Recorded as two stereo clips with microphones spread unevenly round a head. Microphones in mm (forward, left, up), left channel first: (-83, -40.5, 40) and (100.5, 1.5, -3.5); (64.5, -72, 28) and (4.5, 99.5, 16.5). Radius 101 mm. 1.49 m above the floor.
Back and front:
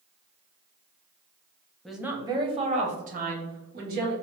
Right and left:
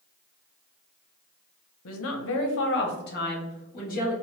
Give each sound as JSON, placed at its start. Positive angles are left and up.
{"t": 1.9, "sound": "a woman speaking", "azimuth_deg": -80, "distance_m": 0.6}